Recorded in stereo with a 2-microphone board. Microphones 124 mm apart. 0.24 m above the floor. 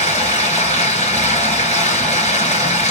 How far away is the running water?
About 3 m.